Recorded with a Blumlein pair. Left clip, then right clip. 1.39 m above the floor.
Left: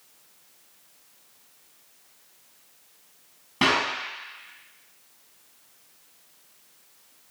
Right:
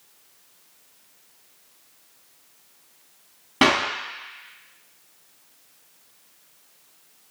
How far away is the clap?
About 0.8 m.